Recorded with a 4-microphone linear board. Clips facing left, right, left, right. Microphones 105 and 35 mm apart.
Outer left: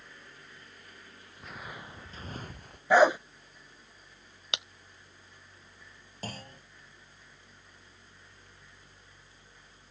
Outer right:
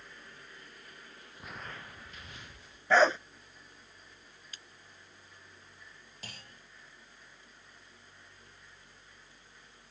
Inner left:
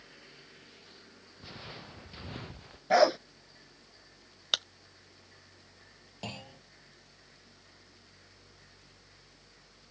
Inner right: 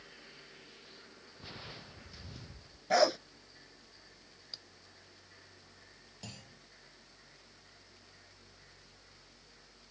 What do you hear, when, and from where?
1.4 s footsteps: 5° right (ahead or behind); by 2.8 s 50° left (ahead or behind)
2.9 s a dog barking: 15° left (ahead or behind)
4.5 s breaking glass: 75° left (ahead or behind)
6.2 s a clunk: 40° left (ahead or behind)